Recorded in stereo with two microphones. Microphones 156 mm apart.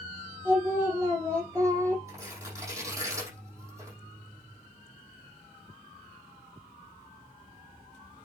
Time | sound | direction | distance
0.5 | singing | 20° right (ahead or behind) | 4.5 m
2.1 | tearing paper | 20° right (ahead or behind) | 5.5 m